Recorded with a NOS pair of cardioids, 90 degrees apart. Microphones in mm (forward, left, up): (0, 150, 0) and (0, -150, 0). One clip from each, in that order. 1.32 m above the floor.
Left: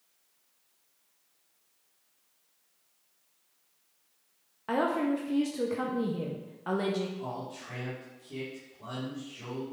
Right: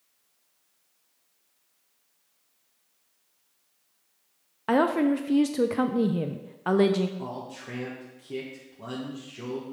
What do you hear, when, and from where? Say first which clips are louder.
4.7 s a woman speaking: right 5 dB; 35° right, 0.5 m
7.2 s a man speaking: right 1 dB; 65° right, 1.7 m